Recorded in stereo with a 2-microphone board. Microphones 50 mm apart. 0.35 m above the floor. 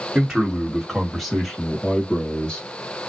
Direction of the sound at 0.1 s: 10° right (ahead or behind).